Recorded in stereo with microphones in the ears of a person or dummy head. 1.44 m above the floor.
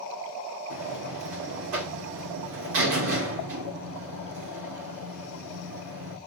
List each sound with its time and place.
0.7 s a buzzer: 70° right (ahead or behind), 3 m